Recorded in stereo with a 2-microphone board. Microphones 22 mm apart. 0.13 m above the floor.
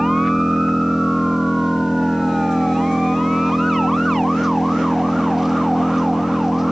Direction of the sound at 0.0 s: 15° right (ahead or behind).